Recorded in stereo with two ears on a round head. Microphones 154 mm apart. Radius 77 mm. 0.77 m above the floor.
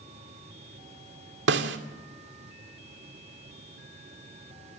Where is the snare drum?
70° right (ahead or behind), 2 m.